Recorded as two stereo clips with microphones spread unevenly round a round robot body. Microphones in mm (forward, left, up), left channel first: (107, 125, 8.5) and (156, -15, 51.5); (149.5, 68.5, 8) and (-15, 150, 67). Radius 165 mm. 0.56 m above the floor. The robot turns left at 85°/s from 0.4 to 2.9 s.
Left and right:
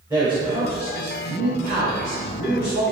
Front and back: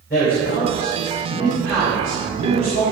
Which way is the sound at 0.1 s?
5° right.